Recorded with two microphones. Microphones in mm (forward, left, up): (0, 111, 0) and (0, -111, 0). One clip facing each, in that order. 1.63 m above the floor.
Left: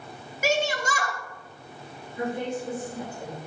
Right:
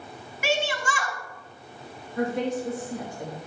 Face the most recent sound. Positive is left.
turn(degrees=-80)